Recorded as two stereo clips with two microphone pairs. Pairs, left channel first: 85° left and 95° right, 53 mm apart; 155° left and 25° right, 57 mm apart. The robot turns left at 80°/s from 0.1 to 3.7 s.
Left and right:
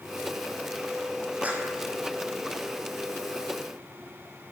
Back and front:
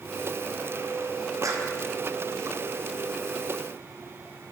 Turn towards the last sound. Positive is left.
turn(degrees=145)